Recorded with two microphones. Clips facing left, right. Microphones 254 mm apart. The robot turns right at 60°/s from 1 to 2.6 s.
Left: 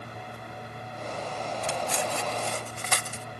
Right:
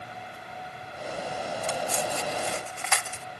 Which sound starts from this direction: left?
Cutlery clinking, at 1.6 s.